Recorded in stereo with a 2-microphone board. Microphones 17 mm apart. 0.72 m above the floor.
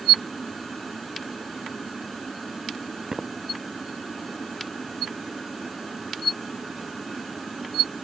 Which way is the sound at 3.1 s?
30° right (ahead or behind).